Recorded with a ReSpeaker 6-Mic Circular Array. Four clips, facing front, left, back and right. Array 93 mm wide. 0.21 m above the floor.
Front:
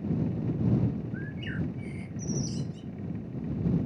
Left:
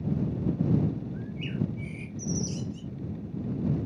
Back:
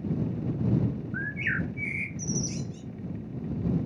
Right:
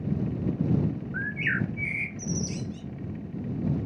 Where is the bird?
125° right.